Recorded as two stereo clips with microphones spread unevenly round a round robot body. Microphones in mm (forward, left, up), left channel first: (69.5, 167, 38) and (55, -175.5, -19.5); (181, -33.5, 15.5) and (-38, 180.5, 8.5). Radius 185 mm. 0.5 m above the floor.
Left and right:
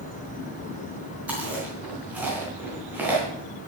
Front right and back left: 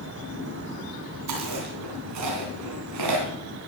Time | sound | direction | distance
1.3 | chewing | 175° right | 3 m